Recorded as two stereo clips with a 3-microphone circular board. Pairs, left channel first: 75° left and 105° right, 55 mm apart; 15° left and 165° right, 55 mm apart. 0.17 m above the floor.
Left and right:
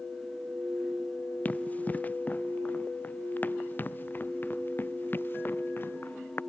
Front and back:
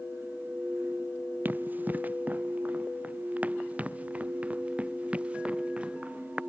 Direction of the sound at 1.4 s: 135° left.